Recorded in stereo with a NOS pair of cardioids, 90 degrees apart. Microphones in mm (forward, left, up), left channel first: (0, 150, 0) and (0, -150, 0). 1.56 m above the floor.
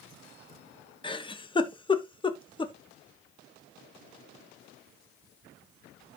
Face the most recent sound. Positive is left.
turn(degrees=15)